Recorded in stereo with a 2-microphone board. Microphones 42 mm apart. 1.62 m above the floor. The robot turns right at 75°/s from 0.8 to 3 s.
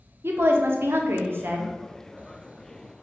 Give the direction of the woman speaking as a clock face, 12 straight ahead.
4 o'clock.